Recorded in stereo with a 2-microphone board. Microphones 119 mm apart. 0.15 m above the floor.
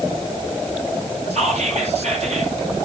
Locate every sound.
1.3 s whispering: 70° right (ahead or behind), 3 m